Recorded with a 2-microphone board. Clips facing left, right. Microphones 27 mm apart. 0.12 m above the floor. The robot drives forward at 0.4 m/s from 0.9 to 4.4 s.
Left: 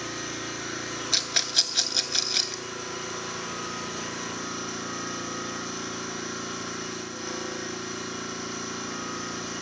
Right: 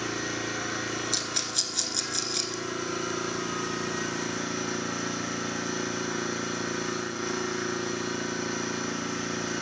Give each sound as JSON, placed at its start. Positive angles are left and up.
{"t": 0.0, "sound": "an engine running", "side_deg": -55, "distance_m": 5.5}
{"t": 1.1, "sound": "a rattle", "side_deg": 40, "distance_m": 0.8}